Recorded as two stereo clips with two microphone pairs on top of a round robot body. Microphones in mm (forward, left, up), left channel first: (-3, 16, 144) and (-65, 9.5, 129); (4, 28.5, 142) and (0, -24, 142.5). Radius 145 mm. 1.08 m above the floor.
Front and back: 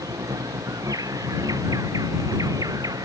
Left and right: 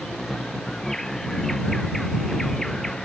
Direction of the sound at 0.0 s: 165° left.